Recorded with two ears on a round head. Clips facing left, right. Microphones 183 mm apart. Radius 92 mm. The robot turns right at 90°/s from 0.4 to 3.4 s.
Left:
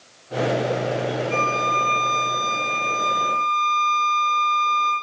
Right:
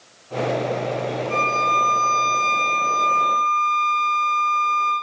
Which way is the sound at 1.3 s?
150° right.